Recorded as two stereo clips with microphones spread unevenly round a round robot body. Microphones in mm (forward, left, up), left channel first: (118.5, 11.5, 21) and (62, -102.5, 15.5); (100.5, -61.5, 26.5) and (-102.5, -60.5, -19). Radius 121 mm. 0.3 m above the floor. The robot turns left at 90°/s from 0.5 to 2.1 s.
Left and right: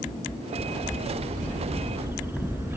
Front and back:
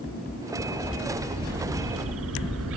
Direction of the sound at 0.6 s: 60° right.